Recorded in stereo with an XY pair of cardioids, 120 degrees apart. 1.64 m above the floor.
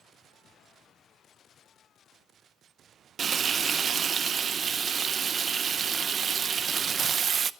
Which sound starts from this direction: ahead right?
Frying, at 3.2 s.